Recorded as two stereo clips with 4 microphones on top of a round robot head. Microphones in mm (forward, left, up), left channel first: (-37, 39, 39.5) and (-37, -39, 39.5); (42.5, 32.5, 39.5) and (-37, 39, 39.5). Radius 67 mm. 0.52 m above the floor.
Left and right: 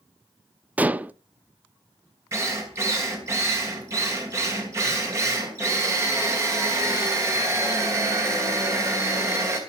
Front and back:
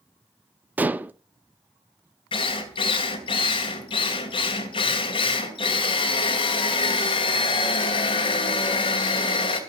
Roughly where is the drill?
Ahead right.